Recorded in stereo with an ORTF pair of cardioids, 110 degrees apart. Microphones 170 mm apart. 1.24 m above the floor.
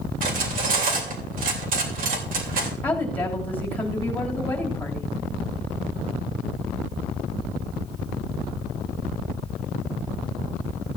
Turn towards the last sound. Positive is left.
turn(degrees=10)